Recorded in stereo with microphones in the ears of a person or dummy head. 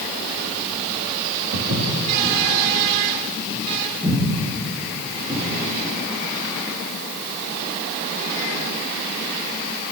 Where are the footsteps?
55° right (ahead or behind), 3.5 m; by 5.4 s 15° right (ahead or behind), 7.5 m.